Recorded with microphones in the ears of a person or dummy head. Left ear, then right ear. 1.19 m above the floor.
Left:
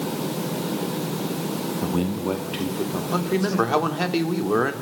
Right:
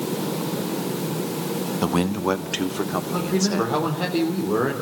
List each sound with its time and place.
1.8 s a man speaking: 60° right (ahead or behind), 1.2 m; by 3.7 s 35° right (ahead or behind), 4 m
3.1 s a man speaking: 80° left, 3.5 m